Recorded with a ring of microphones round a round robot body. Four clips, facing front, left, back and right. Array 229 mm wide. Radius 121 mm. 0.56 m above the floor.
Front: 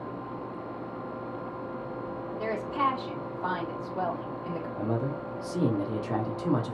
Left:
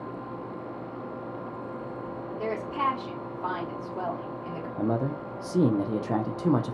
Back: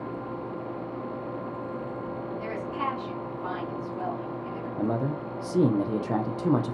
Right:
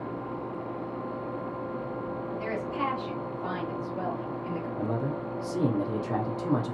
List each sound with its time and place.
2.4 s a woman speaking: 35° left, 3 m
4.8 s a man speaking: 135° left, 0.8 m